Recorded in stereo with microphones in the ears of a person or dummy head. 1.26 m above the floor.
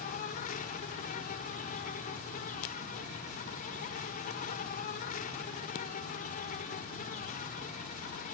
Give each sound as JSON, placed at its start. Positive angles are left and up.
{"t": 0.0, "sound": "an insect", "side_deg": 40}